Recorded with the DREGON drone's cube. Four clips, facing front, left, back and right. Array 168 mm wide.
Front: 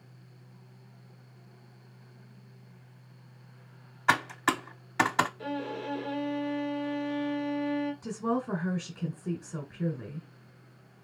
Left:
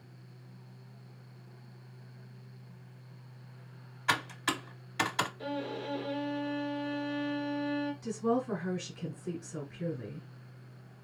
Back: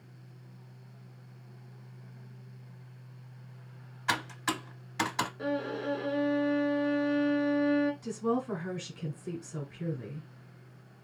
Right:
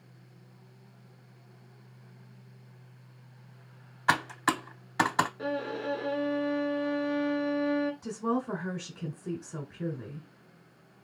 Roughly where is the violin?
Behind right.